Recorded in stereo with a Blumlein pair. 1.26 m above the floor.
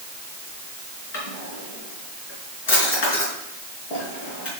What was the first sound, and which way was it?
A drawer, 50° left.